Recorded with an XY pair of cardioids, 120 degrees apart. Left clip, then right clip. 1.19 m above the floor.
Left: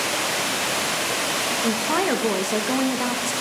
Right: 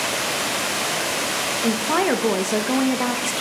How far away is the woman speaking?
About 1.3 m.